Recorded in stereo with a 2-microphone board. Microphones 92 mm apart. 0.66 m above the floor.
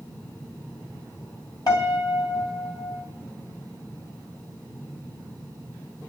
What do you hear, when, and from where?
1.7 s a piano: 45° left (ahead or behind), 2 m